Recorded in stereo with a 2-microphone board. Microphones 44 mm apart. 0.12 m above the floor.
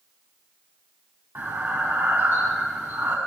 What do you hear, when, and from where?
1.4 s breathing: 50° right (ahead or behind), 2 m